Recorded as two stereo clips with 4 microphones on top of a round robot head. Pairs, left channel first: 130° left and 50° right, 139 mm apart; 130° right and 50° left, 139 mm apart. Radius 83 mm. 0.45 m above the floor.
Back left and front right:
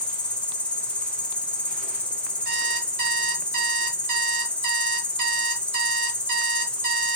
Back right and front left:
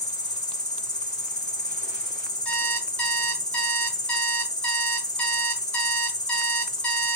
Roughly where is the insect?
Behind right.